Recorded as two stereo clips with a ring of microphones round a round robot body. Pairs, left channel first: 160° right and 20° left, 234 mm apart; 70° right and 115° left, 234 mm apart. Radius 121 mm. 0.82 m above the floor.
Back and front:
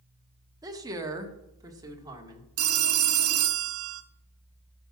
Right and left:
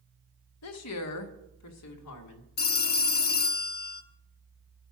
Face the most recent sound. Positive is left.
turn(degrees=-15)